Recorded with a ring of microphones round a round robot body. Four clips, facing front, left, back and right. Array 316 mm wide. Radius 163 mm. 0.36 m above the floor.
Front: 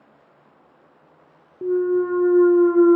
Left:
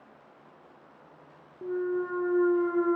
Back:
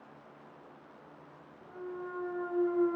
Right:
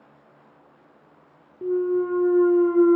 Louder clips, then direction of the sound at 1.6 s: Right 7 dB, front 22 dB; 15° right.